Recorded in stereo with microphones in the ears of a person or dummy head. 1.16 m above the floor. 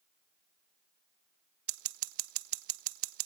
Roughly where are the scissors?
Right.